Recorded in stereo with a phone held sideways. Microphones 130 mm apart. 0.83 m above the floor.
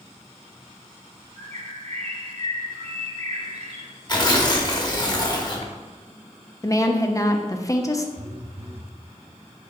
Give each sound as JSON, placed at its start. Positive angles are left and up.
{"t": 1.4, "sound": "a bird", "side_deg": -60, "distance_m": 1.1}
{"t": 4.1, "sound": "tearing paper", "side_deg": 30, "distance_m": 1.0}
{"t": 6.6, "sound": "a woman speaking", "side_deg": 25, "distance_m": 0.7}
{"t": 8.2, "sound": "a phone buzzing", "side_deg": -55, "distance_m": 0.7}